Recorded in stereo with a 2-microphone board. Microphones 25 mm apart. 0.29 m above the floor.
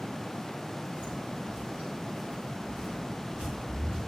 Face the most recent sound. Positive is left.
turn(degrees=-75)  # may be behind; listen again after turning